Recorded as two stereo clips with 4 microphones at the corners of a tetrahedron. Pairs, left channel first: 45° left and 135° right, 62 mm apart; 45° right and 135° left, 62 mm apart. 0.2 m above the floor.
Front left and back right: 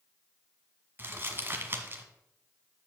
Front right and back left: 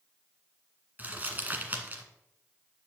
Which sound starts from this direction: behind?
Crumpling, at 1.0 s.